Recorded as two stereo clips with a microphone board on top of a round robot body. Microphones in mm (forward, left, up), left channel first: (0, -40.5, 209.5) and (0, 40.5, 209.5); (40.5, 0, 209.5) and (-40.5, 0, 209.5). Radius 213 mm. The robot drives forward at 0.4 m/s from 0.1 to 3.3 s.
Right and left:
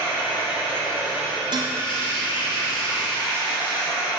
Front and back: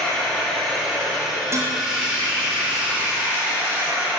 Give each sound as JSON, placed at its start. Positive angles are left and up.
{"t": 0.0, "sound": "running water", "azimuth_deg": -85, "distance_m": 3.0}
{"t": 1.5, "sound": "dishes clattering", "azimuth_deg": 120, "distance_m": 0.9}